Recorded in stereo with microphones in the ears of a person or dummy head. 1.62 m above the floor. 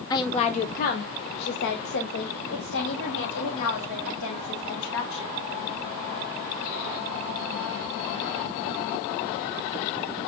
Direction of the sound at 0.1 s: 25° left (ahead or behind).